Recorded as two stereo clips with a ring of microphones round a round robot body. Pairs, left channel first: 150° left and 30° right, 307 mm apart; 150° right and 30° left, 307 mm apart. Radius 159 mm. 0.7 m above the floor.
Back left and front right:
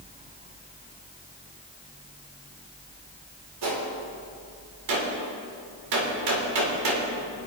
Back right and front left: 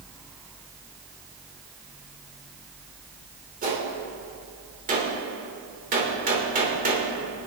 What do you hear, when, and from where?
3.6 s a gunshot: 35° right, 3 m